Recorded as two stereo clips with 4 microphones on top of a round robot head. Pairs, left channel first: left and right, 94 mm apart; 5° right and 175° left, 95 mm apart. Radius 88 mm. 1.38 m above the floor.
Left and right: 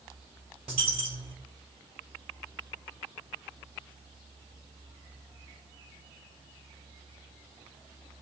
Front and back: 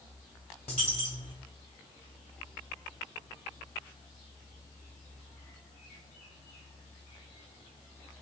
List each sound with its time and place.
0.7 s a dropped coin: 55° right, 1.4 m